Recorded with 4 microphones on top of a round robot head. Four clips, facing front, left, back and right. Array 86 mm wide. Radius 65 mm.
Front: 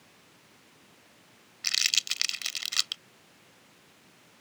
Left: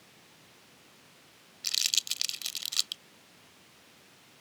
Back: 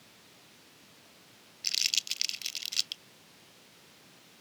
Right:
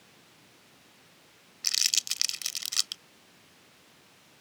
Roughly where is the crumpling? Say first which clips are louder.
Right 1 dB, front 5 dB; ahead.